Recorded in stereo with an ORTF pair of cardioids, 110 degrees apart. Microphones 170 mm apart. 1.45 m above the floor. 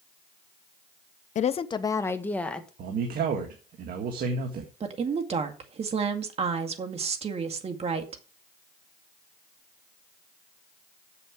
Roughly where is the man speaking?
Ahead right.